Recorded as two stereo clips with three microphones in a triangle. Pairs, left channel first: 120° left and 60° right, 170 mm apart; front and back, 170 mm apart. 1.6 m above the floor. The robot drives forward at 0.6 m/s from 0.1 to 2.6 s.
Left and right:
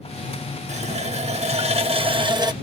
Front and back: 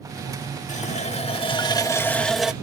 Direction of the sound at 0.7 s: 25° right.